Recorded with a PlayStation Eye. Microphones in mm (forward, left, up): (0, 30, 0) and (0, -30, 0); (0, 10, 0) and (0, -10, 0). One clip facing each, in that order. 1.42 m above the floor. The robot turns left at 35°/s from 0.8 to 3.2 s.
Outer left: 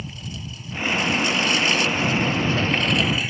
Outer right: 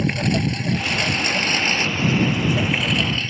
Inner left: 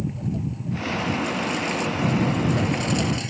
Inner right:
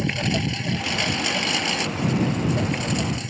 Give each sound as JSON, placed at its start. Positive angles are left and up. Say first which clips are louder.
{"t": 0.0, "sound": "a lawn mower", "louder": "outer right 15 dB, inner right 5 dB", "azimuth_deg": -105}